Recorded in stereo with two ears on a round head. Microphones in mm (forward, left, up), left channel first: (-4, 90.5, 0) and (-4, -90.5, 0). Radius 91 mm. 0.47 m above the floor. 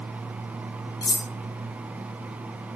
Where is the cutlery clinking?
20° left (ahead or behind), 0.9 m.